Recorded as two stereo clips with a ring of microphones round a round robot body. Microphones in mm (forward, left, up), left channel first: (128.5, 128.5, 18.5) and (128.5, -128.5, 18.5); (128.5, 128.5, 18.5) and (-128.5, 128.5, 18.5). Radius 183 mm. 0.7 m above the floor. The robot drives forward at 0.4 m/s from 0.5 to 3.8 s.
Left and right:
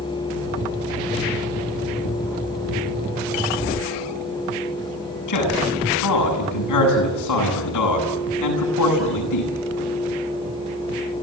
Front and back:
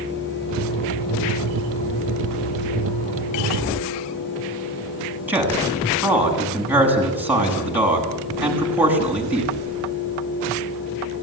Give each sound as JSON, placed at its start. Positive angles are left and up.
{"t": 5.3, "sound": "a man speaking", "azimuth_deg": 95, "distance_m": 8.0}